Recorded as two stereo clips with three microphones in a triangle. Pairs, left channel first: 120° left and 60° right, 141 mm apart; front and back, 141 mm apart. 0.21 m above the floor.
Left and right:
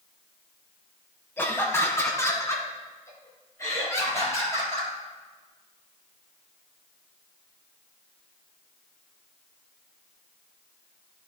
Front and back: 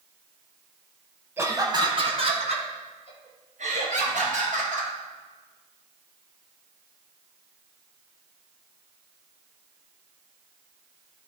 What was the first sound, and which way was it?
Laughter, 155° left.